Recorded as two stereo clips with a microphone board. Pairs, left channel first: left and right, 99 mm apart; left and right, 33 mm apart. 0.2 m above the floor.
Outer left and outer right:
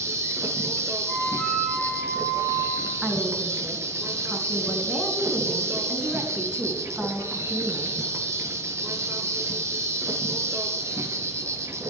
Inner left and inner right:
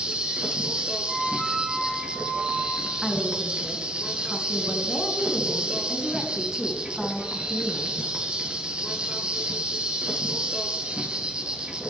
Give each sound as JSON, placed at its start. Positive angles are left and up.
{"t": 0.0, "sound": "an insect", "side_deg": -30, "distance_m": 1.4}
{"t": 1.1, "sound": "a flute", "side_deg": 0, "distance_m": 7.5}
{"t": 3.0, "sound": "a woman speaking", "side_deg": -5, "distance_m": 3.0}